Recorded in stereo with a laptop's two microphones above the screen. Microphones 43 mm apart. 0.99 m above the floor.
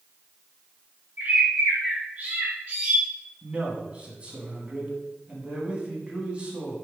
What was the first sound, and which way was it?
A bird, 40° right (ahead or behind).